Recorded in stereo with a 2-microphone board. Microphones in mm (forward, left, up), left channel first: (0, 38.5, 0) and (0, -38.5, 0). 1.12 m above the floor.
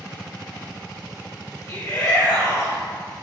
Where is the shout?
35° left (ahead or behind), 1.4 m.